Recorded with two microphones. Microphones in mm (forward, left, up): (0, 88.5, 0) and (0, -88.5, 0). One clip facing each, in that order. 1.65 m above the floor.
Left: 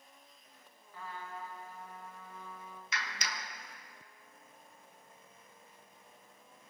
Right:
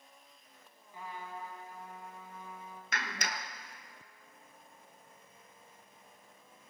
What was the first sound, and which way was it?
A trumpet, 20° right (ahead or behind).